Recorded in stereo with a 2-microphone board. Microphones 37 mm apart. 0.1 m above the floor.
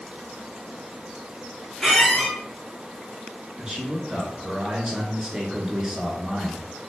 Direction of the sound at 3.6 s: 20° right (ahead or behind).